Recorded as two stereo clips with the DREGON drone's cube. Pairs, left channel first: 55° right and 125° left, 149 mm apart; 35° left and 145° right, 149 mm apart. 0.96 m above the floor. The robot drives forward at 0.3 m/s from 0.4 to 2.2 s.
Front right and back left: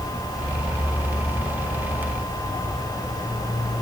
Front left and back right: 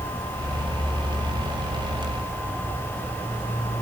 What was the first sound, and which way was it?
Only background noise.